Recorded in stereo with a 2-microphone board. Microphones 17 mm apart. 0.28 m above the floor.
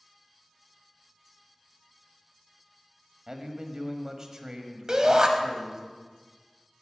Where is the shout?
45° right (ahead or behind), 1.3 m.